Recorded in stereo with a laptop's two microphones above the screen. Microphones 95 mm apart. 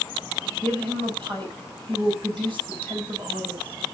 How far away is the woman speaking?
About 8 m.